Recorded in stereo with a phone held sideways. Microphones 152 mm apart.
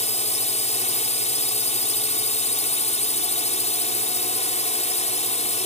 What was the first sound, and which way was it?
A drone, 45° left (ahead or behind).